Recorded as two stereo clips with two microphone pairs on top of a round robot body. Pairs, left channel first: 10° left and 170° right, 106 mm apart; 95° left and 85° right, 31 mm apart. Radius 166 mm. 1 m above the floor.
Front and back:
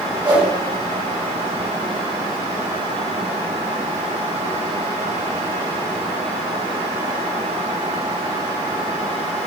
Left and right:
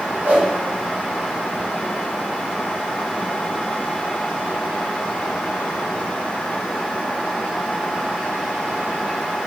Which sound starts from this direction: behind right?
A whoosh, at 0.2 s.